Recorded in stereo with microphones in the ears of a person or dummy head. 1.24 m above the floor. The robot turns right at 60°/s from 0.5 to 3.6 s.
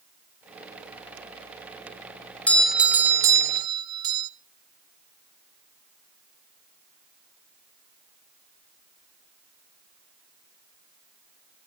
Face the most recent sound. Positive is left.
turn(degrees=-20)  # may be behind; listen again after turning